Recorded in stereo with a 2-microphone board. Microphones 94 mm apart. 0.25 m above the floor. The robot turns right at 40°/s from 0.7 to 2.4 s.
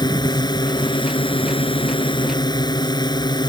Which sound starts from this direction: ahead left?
A drone, at 0.0 s.